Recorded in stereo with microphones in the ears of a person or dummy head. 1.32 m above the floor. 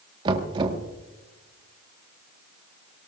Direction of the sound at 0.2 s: 25° right (ahead or behind).